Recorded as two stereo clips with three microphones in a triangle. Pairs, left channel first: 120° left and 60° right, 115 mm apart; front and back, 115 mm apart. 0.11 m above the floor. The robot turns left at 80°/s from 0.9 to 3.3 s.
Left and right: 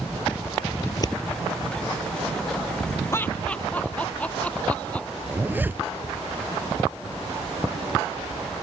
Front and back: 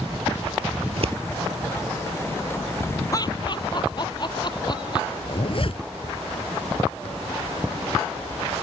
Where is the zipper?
10° left.